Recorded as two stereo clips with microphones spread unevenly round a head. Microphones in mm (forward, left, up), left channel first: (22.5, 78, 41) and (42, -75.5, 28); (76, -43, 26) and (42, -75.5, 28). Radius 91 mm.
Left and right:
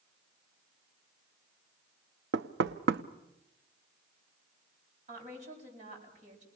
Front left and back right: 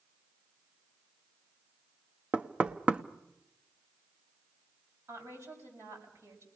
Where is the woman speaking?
135° right, 7 m.